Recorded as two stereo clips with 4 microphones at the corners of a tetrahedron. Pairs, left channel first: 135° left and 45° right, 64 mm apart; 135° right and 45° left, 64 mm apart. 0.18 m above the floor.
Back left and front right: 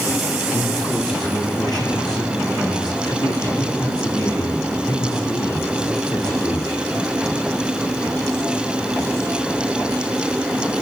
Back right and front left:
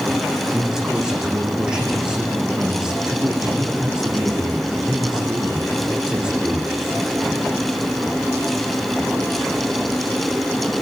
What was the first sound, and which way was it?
A man speaking, 125° left.